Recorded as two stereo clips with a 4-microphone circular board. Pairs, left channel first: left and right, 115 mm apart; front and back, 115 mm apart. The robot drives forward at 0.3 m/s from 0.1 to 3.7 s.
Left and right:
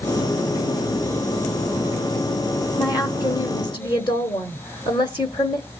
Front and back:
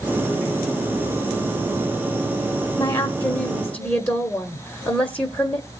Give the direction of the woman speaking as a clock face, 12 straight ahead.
10 o'clock.